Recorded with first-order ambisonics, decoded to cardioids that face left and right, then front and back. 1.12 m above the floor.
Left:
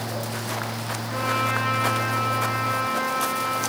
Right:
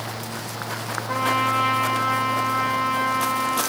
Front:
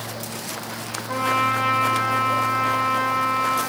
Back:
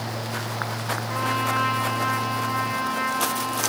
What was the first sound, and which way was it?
A trumpet, 80° right.